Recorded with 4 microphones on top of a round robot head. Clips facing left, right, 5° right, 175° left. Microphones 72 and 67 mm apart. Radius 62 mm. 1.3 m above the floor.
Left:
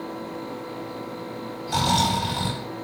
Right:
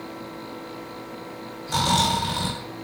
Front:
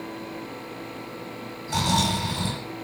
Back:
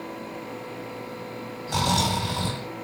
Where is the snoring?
145° right, 1.2 m.